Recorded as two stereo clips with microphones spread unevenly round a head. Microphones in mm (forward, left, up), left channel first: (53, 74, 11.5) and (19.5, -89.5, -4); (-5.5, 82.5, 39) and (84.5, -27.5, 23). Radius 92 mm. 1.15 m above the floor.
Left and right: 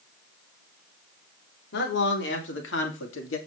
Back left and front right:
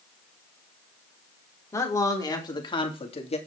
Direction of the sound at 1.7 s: 60° left.